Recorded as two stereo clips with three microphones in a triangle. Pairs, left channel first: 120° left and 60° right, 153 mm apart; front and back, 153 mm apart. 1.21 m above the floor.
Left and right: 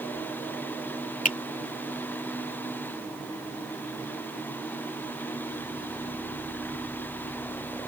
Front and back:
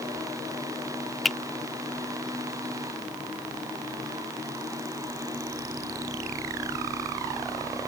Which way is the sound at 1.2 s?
90° left.